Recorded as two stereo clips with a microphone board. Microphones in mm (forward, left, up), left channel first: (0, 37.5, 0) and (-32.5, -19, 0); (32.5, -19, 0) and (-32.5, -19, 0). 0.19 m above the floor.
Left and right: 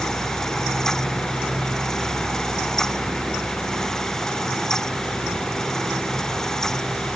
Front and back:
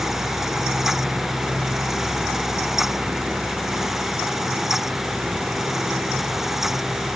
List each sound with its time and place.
Only background noise.